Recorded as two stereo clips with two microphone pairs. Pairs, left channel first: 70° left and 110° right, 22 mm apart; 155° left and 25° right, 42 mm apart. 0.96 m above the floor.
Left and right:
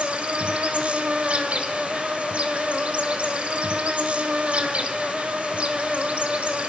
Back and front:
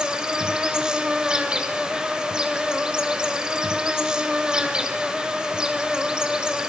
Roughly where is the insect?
Right.